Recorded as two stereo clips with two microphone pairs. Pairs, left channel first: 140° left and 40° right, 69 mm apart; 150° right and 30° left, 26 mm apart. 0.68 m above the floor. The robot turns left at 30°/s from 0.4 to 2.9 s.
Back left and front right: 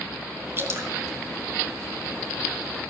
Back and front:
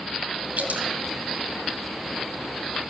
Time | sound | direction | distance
0.6 | dripping | 20° left | 2.5 m